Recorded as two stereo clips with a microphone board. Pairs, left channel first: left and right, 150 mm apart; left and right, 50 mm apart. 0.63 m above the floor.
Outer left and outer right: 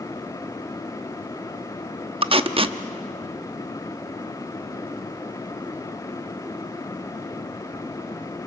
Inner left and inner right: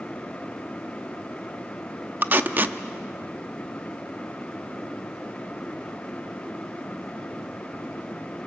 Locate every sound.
2.2 s tape being pulled: 40° right (ahead or behind), 0.7 m